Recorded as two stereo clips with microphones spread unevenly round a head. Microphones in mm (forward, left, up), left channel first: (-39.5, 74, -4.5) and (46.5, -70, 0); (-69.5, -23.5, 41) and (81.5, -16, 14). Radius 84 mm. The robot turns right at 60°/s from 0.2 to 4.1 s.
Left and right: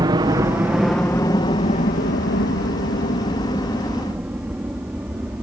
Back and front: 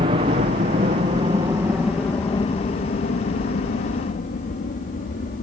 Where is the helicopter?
5° right; by 5.4 s 145° right.